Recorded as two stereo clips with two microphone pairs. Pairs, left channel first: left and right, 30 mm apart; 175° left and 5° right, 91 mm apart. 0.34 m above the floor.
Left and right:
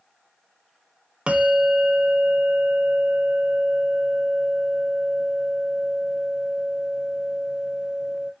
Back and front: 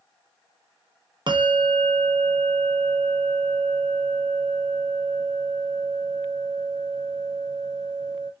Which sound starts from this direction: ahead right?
A bell, at 1.3 s.